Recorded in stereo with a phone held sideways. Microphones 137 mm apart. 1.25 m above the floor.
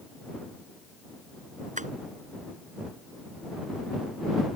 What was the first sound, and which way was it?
Tapping, 60° right (ahead or behind).